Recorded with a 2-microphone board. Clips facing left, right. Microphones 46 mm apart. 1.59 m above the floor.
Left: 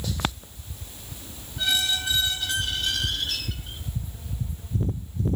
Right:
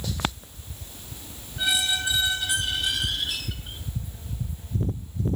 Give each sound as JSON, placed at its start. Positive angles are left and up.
{"t": 1.6, "sound": "a squeak", "side_deg": -15, "distance_m": 1.8}